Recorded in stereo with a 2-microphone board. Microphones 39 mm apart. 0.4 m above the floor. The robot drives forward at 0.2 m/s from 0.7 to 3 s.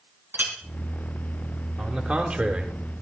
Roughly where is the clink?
Right.